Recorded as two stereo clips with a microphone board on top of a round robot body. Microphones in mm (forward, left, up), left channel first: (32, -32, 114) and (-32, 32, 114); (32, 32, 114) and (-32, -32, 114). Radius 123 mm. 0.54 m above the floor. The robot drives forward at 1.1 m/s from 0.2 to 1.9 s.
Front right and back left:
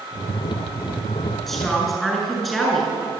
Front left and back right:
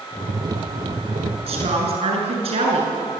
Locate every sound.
1.5 s a woman speaking: 135° right, 7.5 m